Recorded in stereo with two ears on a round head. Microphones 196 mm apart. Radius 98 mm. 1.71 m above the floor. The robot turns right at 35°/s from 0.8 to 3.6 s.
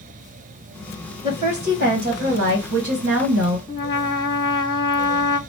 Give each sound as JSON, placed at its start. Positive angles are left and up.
{"t": 1.2, "sound": "a woman speaking", "azimuth_deg": -145, "distance_m": 1.5}
{"t": 3.7, "sound": "a trumpet", "side_deg": 20, "distance_m": 1.1}